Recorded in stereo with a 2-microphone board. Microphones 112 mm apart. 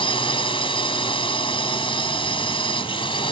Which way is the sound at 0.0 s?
50° left (ahead or behind).